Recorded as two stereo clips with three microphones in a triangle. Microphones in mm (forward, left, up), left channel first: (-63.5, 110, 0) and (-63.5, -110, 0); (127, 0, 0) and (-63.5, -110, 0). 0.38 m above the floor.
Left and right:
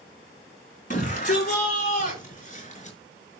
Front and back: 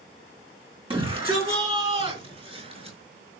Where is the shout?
145° left, 4.5 m; by 3.0 s 150° left, 6 m.